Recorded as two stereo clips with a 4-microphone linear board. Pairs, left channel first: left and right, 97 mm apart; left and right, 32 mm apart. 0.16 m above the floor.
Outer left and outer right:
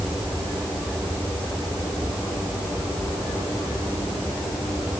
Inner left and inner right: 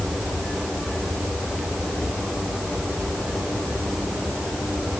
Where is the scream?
No scream in this recording.